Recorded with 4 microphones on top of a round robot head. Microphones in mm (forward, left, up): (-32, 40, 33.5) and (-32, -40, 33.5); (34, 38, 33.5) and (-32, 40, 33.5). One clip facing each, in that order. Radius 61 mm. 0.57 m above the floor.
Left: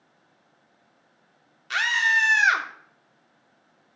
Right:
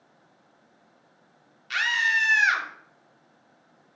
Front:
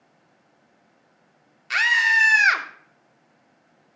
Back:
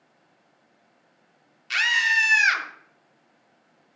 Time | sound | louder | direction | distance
1.7 | a scream | left 2 dB, front 3 dB | 45° left | 1.7 m